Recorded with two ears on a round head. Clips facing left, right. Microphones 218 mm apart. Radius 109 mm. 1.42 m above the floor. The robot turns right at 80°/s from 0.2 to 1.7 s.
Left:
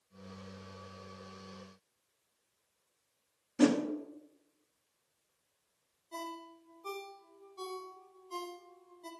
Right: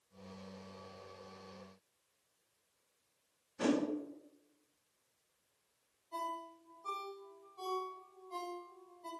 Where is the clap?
No clap in this recording.